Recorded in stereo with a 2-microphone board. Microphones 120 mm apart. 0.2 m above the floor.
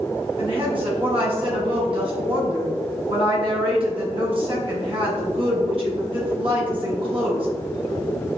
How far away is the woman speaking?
About 1.6 m.